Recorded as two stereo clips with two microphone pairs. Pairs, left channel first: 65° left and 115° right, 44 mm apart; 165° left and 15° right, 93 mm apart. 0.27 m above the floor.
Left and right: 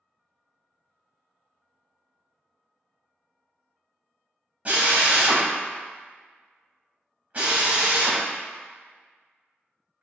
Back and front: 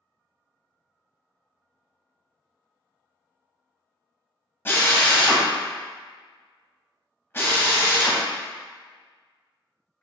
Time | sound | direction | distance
4.7 | a drill | 150° right | 0.8 m